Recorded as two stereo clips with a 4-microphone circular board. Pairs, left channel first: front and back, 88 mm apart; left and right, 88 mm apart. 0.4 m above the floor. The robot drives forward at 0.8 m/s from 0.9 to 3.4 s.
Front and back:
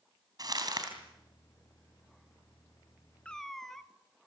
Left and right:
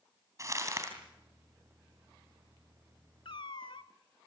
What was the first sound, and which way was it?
Crumpling, 140° right.